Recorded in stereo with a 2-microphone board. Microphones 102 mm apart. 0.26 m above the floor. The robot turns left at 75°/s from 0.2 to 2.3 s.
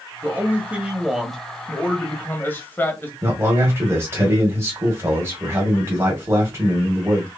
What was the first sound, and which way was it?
A man speaking, 20° right (ahead or behind).